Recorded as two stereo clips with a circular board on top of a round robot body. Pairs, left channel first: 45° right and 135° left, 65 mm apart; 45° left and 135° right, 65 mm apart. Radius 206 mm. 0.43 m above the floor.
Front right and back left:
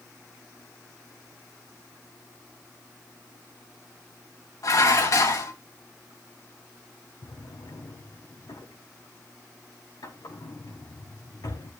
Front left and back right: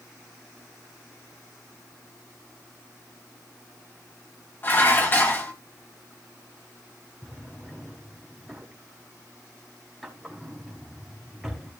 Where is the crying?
No crying in this recording.